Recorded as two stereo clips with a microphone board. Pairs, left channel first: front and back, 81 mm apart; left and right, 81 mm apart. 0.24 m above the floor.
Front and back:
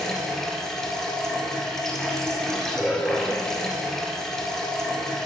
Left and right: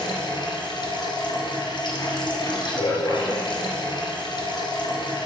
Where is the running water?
85° left, 2.5 m.